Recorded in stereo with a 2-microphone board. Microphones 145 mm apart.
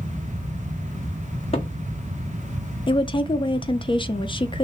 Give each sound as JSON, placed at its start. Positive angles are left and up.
{"t": 1.5, "sound": "a cupboard door", "side_deg": 45, "distance_m": 1.4}
{"t": 2.9, "sound": "a woman speaking", "side_deg": 35, "distance_m": 0.6}